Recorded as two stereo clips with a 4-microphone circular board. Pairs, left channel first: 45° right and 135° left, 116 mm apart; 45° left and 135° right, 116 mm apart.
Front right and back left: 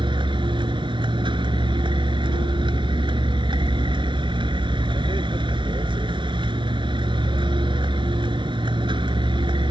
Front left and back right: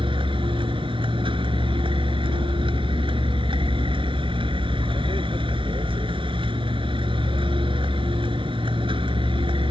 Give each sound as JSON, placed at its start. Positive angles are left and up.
{"t": 0.0, "sound": "a vehicle", "azimuth_deg": 180}